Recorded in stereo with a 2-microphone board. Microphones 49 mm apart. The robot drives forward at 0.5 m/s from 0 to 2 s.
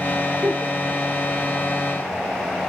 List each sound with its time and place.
0.4 s a giggle: 30° right (ahead or behind), 3.5 m